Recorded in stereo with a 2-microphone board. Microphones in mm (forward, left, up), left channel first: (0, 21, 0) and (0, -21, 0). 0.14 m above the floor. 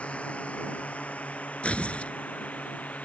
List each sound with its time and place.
0.0 s a drone: 35° left (ahead or behind); by 3.1 s 40° left (ahead or behind)
1.6 s tearing paper: 30° left (ahead or behind)